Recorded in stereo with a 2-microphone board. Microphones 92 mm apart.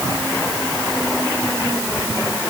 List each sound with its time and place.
Only background noise.